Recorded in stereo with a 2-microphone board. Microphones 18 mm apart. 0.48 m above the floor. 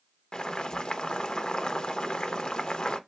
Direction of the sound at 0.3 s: 55° left (ahead or behind).